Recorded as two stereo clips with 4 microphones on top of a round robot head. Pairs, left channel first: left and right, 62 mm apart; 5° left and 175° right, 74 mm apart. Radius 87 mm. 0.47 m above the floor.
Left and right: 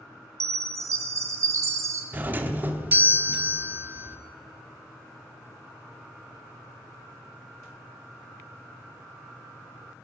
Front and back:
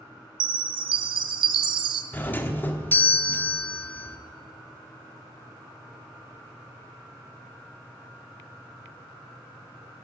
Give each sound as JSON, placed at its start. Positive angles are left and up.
{"t": 0.4, "sound": "a chime", "azimuth_deg": -145, "distance_m": 0.6}
{"t": 2.1, "sound": "a doorbell", "azimuth_deg": -45, "distance_m": 1.4}